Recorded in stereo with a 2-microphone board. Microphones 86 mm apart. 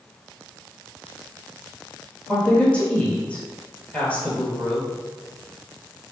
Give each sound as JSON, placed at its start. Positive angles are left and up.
{"t": 2.3, "sound": "a woman speaking", "side_deg": 10, "distance_m": 1.5}